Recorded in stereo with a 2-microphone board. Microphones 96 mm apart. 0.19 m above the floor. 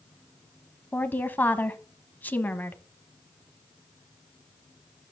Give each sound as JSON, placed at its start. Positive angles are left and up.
{"t": 0.9, "sound": "a woman speaking", "side_deg": 20, "distance_m": 1.0}